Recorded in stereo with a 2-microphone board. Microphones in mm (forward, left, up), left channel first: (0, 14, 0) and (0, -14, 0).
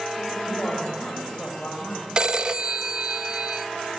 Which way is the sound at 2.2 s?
35° right (ahead or behind).